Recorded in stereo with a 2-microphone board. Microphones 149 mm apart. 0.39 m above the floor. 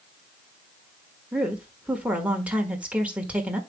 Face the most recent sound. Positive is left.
turn(degrees=-10)  # may be behind; listen again after turning